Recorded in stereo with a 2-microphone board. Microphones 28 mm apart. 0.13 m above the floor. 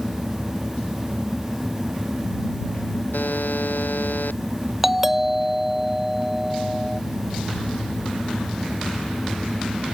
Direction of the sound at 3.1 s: 80° left.